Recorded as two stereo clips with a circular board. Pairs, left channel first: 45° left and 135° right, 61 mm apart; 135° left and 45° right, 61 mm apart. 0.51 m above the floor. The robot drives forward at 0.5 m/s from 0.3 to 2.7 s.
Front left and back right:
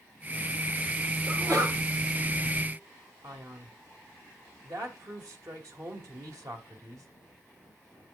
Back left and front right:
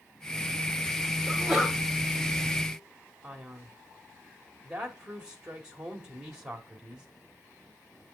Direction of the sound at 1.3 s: 125° right.